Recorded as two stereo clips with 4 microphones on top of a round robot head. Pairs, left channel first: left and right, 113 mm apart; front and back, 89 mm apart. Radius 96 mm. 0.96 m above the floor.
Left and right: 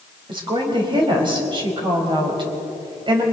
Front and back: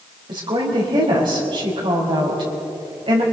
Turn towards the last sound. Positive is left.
turn(degrees=-135)